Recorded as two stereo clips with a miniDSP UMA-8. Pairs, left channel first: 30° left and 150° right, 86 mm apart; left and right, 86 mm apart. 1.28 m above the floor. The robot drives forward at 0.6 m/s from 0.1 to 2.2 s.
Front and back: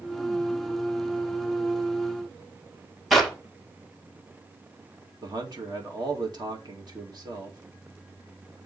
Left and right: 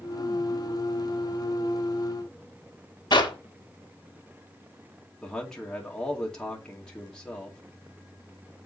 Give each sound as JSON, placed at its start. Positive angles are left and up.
{"t": 3.1, "sound": "a clap", "azimuth_deg": 120, "distance_m": 2.0}
{"t": 5.2, "sound": "a man speaking", "azimuth_deg": 170, "distance_m": 2.0}